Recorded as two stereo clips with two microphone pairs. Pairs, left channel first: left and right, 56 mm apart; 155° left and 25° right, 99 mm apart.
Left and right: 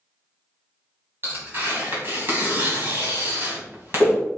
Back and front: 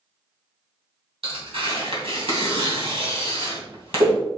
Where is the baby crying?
I don't hear a baby crying.